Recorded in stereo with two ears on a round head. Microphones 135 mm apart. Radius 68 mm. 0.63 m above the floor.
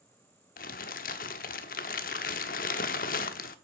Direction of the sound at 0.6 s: 60° left (ahead or behind).